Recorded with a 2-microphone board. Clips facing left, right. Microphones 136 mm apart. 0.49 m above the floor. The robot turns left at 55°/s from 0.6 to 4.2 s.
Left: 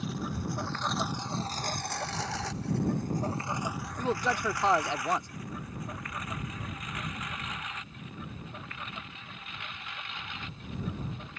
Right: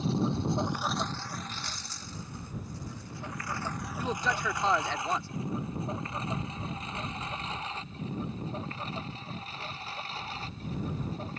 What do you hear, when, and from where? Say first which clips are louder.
0.0 s a lawn mower: right 6 dB; 30° right (ahead or behind); by 11.4 s 35° right (ahead or behind)
4.0 s a man speaking: left 3 dB; 15° left (ahead or behind)